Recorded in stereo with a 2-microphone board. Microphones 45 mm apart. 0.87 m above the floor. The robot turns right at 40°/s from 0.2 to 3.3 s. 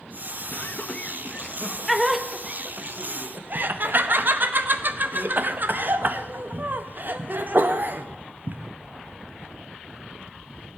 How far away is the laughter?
About 0.6 m.